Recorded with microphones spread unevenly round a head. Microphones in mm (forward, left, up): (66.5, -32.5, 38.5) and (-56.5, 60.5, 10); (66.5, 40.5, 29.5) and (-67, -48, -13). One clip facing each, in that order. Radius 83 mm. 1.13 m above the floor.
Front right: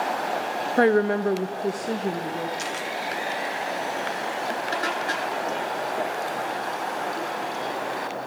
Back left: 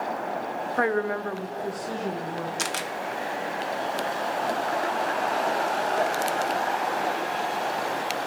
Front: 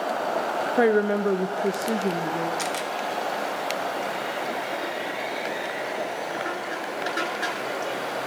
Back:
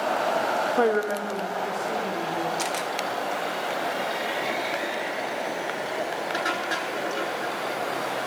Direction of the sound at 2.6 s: 120° left.